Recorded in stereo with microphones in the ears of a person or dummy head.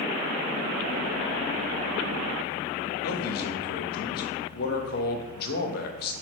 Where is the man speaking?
55° left (ahead or behind), 1.0 m.